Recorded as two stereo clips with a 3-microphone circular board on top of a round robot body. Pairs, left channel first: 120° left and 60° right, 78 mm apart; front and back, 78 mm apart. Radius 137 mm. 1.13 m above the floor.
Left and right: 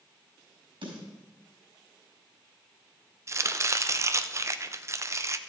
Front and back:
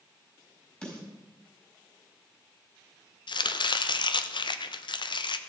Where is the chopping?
10° right, 0.7 m.